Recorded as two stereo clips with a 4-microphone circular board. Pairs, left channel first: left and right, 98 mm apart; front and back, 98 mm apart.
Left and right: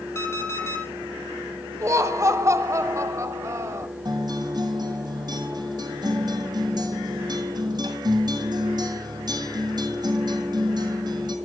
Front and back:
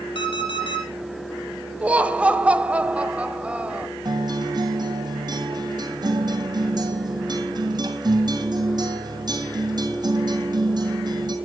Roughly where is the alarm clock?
Ahead left.